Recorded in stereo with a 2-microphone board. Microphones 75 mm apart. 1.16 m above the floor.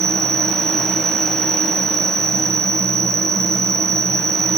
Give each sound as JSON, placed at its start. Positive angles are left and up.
{"t": 0.0, "sound": "an insect", "side_deg": -45}